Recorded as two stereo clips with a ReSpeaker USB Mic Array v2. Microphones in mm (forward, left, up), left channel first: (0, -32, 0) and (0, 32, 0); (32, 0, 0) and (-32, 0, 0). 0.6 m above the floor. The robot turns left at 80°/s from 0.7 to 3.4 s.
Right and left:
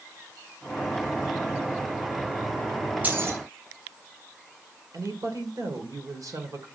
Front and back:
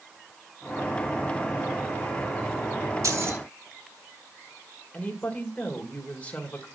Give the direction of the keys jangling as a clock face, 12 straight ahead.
7 o'clock.